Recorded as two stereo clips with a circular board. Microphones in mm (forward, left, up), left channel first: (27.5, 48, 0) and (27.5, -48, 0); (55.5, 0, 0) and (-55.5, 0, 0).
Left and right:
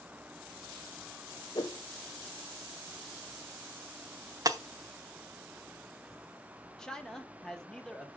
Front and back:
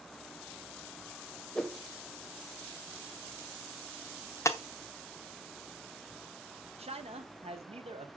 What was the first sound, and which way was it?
A whoosh, 80° left.